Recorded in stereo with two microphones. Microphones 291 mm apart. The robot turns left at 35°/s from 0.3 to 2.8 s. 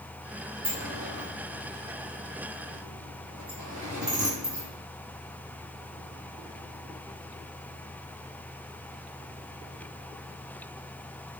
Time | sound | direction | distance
0.6 | a sliding door | 30° right (ahead or behind) | 1.6 m